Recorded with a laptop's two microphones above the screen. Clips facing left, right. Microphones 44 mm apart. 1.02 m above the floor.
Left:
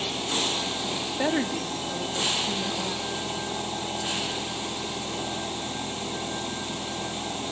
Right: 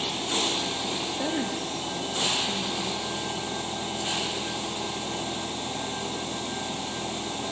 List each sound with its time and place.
1.2 s a woman speaking: 50° left (ahead or behind), 2.0 m; by 3.4 s 80° left, 2.5 m